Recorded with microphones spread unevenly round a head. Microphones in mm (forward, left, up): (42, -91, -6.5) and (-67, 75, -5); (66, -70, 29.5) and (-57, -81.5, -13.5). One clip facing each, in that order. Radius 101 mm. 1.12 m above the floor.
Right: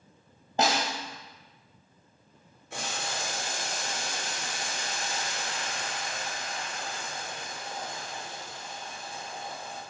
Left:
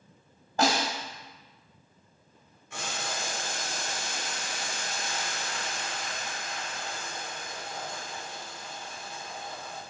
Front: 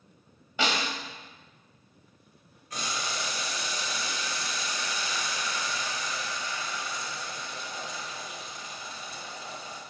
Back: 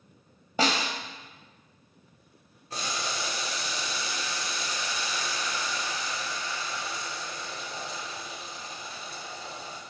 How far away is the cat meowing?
No cat meowing in this recording.